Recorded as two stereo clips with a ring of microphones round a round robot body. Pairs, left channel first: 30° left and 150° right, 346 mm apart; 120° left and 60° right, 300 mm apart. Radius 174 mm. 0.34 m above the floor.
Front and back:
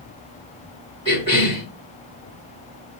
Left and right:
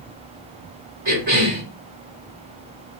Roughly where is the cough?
Right.